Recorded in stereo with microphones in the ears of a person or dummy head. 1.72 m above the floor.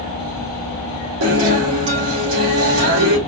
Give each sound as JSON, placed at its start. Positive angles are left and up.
{"t": 1.2, "sound": "a guitar", "side_deg": -70, "distance_m": 3.0}